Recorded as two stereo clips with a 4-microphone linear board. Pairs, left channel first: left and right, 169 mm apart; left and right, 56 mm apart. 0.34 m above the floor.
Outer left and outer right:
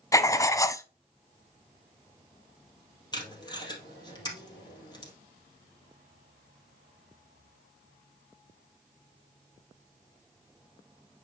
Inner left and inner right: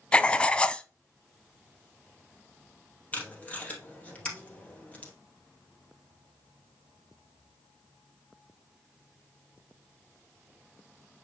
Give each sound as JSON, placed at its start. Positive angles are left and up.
{"t": 0.1, "sound": "writing", "side_deg": 20, "distance_m": 0.5}
{"t": 3.1, "sound": "tape being pulled", "side_deg": 25, "distance_m": 2.0}